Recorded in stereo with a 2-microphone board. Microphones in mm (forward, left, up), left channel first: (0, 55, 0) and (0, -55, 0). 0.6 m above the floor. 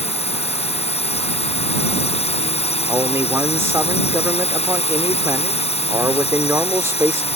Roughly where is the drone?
Left.